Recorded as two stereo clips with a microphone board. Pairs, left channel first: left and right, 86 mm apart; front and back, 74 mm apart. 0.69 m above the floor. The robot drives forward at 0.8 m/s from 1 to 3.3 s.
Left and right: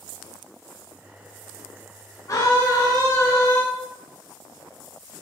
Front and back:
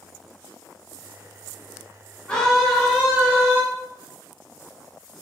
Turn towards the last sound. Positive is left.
turn(degrees=130)